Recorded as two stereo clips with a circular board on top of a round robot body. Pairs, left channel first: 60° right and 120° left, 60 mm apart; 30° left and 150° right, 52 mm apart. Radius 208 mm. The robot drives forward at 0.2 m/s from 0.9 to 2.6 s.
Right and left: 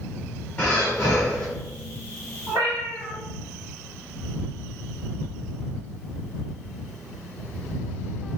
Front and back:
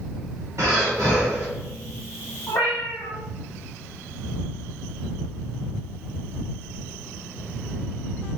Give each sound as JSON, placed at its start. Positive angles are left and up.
{"t": 0.6, "sound": "breathing", "azimuth_deg": -125, "distance_m": 1.3}
{"t": 2.5, "sound": "a cat meowing", "azimuth_deg": 90, "distance_m": 0.8}